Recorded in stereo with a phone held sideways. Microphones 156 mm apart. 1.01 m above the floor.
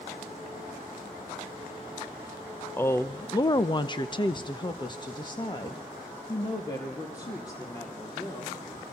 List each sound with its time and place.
2.8 s a woman speaking: 15° left (ahead or behind), 0.7 m; by 8.6 s 25° left (ahead or behind), 3.5 m